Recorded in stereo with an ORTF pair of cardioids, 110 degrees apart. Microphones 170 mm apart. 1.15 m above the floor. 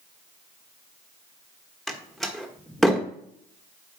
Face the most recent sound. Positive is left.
turn(degrees=0)